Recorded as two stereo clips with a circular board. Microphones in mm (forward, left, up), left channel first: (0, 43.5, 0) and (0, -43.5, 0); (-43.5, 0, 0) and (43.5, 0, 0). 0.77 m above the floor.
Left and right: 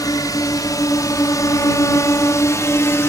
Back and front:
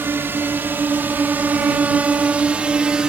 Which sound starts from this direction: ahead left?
A drone, at 0.0 s.